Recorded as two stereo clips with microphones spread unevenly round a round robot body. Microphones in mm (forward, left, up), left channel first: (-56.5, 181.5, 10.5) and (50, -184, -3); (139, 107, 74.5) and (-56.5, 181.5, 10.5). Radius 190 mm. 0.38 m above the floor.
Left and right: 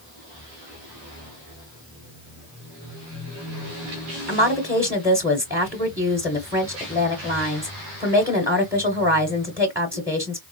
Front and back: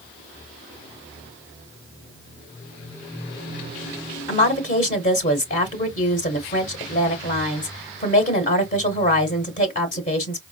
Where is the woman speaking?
10° right, 1.1 m.